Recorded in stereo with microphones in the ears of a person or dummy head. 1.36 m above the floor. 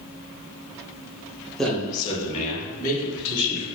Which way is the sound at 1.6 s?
Centre (ahead or behind).